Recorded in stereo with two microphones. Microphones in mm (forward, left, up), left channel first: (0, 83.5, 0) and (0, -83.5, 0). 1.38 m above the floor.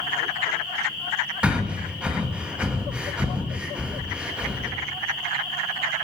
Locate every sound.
1.4 s breathing: 5° right (ahead or behind), 1.1 m